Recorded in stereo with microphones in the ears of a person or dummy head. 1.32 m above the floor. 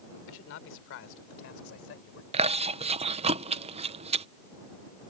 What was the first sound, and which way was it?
A man speaking, 75° left (ahead or behind).